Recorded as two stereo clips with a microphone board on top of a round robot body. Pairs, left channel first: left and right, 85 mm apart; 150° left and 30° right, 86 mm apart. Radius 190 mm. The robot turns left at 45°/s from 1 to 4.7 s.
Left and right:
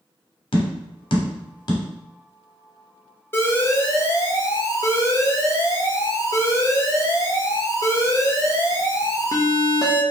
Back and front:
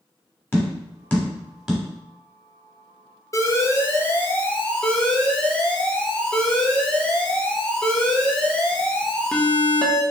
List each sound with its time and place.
0.5 s tapping: 80° left, 0.9 m; by 1.8 s 45° left, 0.9 m
3.3 s an alarm: 135° left, 0.9 m; by 10.0 s 75° left, 0.9 m